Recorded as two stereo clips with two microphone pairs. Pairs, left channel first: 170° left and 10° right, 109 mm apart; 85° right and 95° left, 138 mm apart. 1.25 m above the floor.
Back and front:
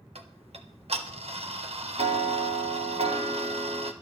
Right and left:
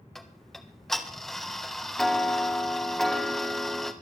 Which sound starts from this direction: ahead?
Ticking, at 0.1 s.